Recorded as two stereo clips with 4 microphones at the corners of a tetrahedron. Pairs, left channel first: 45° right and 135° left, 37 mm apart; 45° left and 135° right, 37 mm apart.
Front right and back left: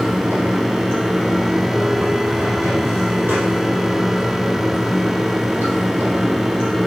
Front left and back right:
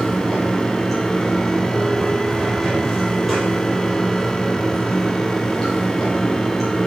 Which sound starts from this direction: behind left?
Running water, at 0.0 s.